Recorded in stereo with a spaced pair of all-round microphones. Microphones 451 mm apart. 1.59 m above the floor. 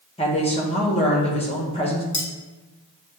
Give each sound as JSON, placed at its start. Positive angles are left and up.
{"t": 0.2, "sound": "a woman speaking", "side_deg": 15, "distance_m": 1.1}
{"t": 2.1, "sound": "cutlery clinking", "side_deg": 25, "distance_m": 1.5}